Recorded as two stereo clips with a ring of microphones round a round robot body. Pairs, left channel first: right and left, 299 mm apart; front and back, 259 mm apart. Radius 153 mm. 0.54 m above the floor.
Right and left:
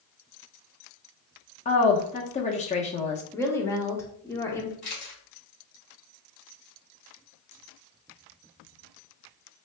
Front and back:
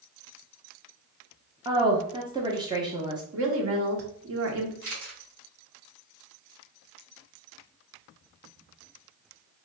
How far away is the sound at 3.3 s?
About 1.1 m.